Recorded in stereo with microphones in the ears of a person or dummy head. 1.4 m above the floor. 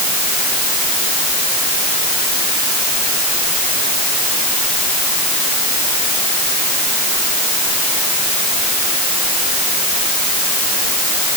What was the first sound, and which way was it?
Only background noise.